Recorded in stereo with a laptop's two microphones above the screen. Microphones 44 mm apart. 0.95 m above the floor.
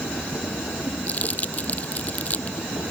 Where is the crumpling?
35° left (ahead or behind).